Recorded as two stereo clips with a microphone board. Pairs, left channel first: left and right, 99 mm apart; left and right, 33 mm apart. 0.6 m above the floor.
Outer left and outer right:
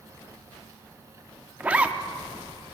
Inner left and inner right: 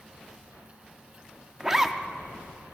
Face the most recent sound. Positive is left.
turn(degrees=-15)  # may be behind; listen again after turning